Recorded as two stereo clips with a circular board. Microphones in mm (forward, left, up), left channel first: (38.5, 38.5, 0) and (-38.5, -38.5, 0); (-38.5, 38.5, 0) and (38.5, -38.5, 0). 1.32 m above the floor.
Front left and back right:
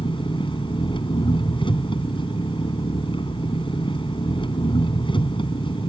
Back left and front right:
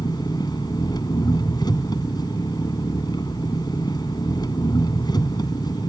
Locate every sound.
0.0 s an engine running: 85° left